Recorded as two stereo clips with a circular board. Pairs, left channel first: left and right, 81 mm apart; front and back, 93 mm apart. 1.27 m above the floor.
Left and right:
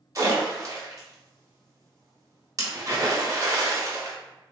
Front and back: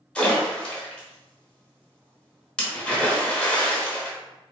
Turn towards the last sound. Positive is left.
turn(degrees=-75)